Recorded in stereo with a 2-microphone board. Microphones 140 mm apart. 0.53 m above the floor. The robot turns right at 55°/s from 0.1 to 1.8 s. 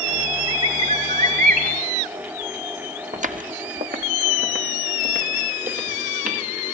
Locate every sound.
0.5 s a bird: 155° right, 2.5 m; by 1.7 s 85° right, 2.5 m
3.1 s footsteps: 60° right (ahead or behind), 1.4 m; by 6.5 s 75° right (ahead or behind), 5 m